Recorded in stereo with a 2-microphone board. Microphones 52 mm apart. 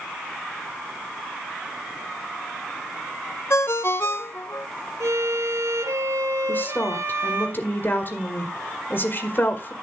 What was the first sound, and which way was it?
A ringtone, 60° left (ahead or behind).